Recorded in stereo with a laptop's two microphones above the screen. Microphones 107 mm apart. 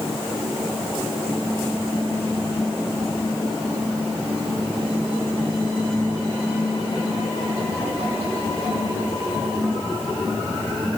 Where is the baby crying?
No baby crying in this recording.